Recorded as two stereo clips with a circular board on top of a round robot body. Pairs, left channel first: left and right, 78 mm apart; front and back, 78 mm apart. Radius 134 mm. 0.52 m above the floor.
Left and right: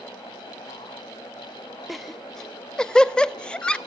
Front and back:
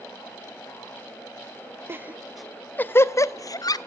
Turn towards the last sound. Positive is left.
turn(degrees=15)